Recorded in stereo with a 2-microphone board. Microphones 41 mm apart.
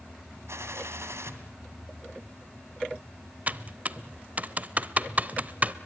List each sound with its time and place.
0.5 s a gunshot: 75° right (ahead or behind), 2 m
3.5 s typing on a keyboard: 35° right (ahead or behind), 0.7 m